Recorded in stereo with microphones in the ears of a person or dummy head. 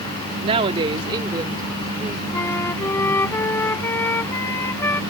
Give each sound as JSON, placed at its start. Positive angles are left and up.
{"t": 0.4, "sound": "a woman speaking", "side_deg": -30}
{"t": 2.3, "sound": "a flute", "side_deg": 15}